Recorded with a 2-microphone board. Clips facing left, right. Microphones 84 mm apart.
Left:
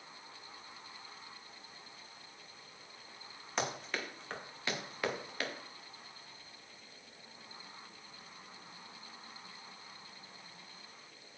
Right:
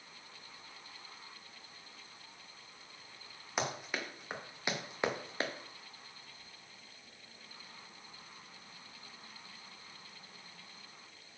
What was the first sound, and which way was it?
Running footsteps, 5° right (ahead or behind).